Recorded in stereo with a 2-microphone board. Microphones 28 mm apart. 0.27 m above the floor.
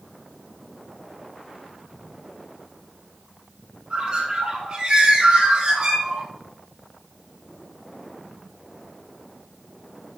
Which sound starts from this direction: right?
A bird, at 3.9 s.